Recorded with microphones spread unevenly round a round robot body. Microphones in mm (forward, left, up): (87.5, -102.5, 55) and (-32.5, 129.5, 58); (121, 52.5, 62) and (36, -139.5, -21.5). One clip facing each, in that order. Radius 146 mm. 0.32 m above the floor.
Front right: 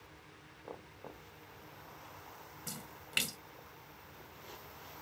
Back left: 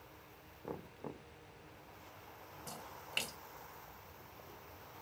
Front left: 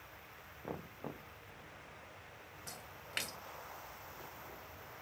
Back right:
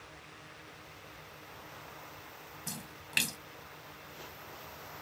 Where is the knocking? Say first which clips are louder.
Back left 4 dB, front left 9 dB; 65° left.